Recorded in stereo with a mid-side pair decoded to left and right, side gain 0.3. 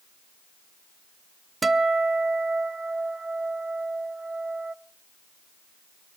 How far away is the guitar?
About 0.8 m.